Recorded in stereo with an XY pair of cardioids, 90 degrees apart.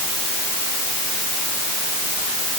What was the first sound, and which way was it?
Only background noise.